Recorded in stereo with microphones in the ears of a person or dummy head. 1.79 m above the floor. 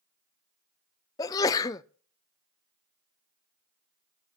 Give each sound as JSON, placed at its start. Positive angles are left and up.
{"t": 1.2, "sound": "a sneeze", "side_deg": 20, "distance_m": 0.6}